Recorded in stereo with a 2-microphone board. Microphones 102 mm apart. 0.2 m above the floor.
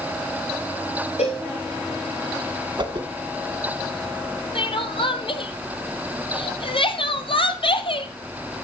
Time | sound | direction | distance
1.2 | a cowbell | 85° left | 6 m
2.8 | a whoosh | 45° right (ahead or behind) | 2 m
4.5 | crying | 60° left (ahead or behind) | 1.5 m